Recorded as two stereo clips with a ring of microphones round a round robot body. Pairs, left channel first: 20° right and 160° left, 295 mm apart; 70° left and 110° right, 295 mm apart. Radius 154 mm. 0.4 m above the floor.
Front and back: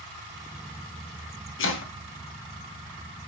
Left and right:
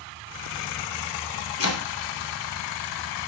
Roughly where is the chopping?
Ahead left.